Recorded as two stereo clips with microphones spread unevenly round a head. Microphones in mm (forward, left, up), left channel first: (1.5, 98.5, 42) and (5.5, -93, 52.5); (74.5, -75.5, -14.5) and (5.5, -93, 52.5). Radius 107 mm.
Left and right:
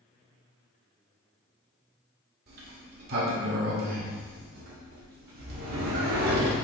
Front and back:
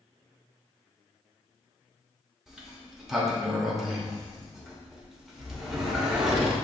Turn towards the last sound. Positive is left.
turn(degrees=-120)